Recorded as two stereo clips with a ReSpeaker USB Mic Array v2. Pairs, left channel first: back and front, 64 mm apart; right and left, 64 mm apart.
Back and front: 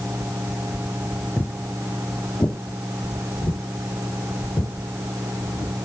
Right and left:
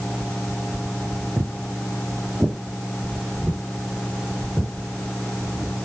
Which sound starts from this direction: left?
Footsteps, at 1.4 s.